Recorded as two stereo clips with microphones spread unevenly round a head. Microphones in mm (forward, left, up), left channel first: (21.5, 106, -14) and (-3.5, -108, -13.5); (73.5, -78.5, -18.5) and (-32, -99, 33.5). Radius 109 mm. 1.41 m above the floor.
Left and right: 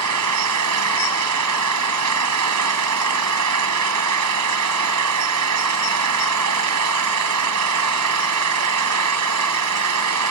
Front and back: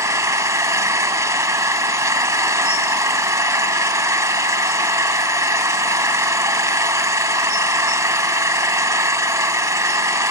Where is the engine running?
110° right.